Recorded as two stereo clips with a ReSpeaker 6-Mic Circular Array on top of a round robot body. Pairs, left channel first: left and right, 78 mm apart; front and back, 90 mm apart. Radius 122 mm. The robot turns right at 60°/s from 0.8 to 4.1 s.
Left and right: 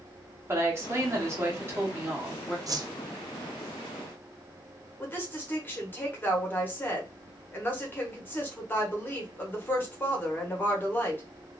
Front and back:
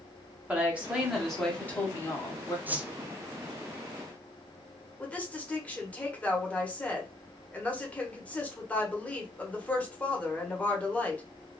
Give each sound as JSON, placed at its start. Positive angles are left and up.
{"t": 0.5, "sound": "a woman speaking", "azimuth_deg": -115, "distance_m": 1.5}
{"t": 2.7, "sound": "a whoosh", "azimuth_deg": -115, "distance_m": 0.5}
{"t": 5.0, "sound": "a woman speaking", "azimuth_deg": 60, "distance_m": 1.3}